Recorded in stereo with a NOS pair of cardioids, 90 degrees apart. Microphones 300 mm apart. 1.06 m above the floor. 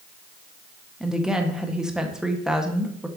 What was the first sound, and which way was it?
A woman speaking, straight ahead.